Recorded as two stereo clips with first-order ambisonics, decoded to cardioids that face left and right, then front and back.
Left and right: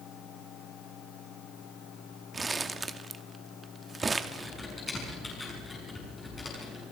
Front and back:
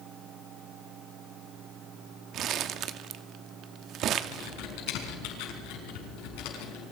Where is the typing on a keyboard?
10° left, 6 m.